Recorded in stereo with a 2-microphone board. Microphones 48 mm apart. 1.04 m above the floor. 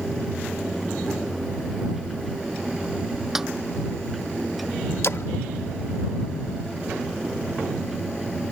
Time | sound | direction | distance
3.4 | a snare drum | 5° right (ahead or behind) | ?
5.0 | a splash | 65° left (ahead or behind) | ?